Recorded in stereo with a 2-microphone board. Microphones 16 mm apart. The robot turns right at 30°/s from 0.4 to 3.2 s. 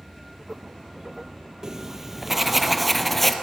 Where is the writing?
35° right, 1.7 m; by 3.3 s 15° left, 1.7 m.